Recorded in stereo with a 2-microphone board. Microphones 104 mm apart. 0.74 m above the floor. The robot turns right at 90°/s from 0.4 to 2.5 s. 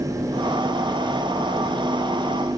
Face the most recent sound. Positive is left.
No sound to turn to.